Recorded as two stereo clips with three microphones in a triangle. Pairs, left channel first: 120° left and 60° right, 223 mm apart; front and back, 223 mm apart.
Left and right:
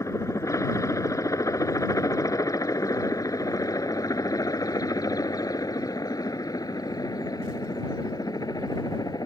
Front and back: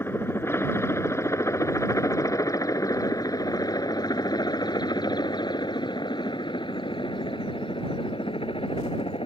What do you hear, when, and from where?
0.0 s a helicopter: 65° left; by 9.3 s 55° left